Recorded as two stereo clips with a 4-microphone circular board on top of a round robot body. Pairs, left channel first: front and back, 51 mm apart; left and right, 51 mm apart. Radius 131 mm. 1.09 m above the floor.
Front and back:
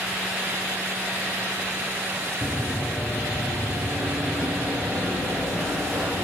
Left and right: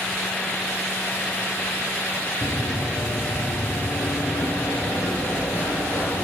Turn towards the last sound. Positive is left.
turn(degrees=140)